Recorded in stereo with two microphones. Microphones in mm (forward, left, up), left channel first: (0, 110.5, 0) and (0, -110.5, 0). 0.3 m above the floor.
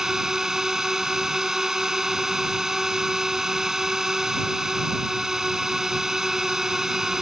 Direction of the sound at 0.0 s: Centre (ahead or behind).